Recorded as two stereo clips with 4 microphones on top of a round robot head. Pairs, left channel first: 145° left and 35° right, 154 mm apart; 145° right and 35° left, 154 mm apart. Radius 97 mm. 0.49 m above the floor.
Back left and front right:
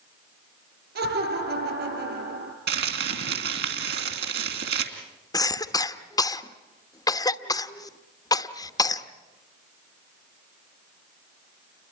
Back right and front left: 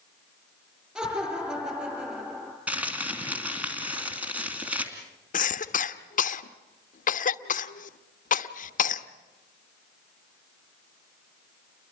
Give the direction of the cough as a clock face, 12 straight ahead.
5 o'clock.